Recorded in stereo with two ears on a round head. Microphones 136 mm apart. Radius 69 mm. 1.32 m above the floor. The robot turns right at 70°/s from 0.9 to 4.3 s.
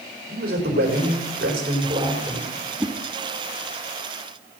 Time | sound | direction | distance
0.3 | a man speaking | 110° right | 4.5 m
2.8 | a whoosh | 5° right (ahead or behind) | 1.3 m